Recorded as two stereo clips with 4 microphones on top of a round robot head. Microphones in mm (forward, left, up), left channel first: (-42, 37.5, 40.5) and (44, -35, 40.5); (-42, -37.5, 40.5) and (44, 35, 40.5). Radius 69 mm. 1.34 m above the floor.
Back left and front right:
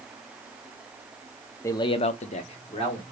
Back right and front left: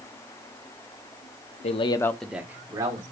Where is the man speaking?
155° right, 0.6 m; by 3.0 s 100° left, 1.2 m.